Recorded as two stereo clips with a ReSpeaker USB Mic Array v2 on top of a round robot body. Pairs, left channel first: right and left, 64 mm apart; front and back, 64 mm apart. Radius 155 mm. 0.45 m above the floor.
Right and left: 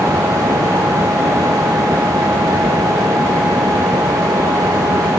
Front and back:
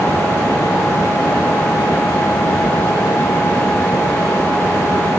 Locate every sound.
Only background noise.